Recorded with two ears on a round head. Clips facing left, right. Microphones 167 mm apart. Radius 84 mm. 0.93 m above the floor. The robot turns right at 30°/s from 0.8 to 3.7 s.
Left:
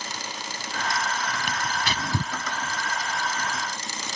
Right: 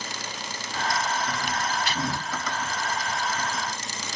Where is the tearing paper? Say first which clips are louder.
Right 1 dB; 50° left (ahead or behind); by 2.3 s 75° left (ahead or behind).